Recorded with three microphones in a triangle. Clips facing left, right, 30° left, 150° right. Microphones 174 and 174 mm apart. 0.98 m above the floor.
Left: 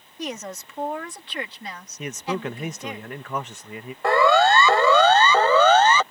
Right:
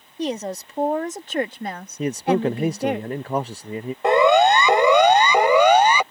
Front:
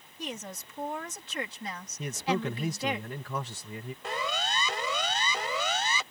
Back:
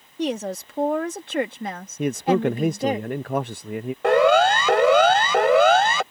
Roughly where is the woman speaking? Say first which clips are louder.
Right 7 dB, back 14 dB; behind right.